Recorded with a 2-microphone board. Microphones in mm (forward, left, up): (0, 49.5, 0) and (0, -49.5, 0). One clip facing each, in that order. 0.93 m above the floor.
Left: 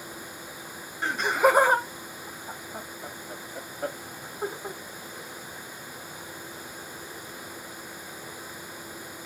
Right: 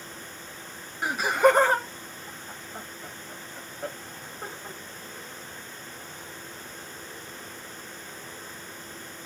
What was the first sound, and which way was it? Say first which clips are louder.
Laughter: right 2 dB; 10° right (ahead or behind).